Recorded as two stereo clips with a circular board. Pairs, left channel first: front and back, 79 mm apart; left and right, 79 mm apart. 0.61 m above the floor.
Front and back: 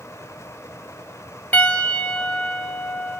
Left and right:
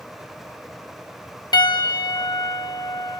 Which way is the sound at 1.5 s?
65° left.